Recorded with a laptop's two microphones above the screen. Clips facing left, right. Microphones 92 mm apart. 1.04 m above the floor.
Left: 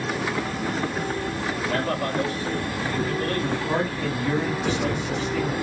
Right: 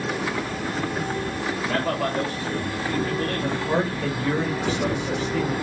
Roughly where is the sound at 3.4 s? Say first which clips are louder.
Right 1 dB; centre.